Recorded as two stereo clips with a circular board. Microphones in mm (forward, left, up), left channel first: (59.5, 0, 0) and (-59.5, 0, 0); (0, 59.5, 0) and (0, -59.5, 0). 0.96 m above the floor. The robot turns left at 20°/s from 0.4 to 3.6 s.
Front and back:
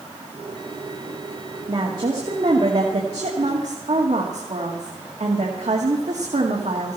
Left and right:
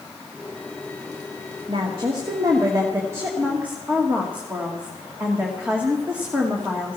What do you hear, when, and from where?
1.7 s a woman speaking: 125° right, 2 m; by 7.0 s 165° right, 2 m